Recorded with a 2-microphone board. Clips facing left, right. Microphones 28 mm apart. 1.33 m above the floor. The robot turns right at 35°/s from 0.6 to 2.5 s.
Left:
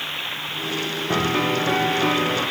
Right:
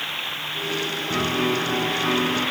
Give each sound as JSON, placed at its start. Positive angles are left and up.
{"t": 1.1, "sound": "a piano", "azimuth_deg": 75, "distance_m": 0.9}